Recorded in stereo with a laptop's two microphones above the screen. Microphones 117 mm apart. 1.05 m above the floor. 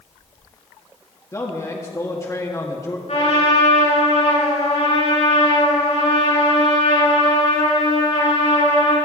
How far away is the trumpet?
About 6 m.